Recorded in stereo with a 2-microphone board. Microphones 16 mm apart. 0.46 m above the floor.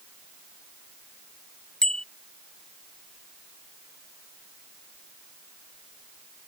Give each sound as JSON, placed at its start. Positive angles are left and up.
{"t": 1.8, "sound": "a bicycle bell", "side_deg": 65}